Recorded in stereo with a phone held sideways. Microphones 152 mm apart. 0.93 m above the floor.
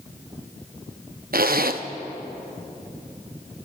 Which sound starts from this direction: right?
A zipper, at 1.3 s.